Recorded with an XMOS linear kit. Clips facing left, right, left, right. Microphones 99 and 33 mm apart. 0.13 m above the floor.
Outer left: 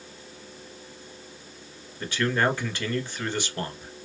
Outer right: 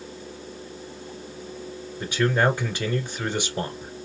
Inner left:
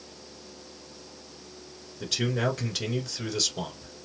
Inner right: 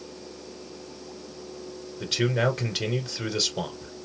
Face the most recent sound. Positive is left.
turn(degrees=-15)  # may be behind; listen again after turning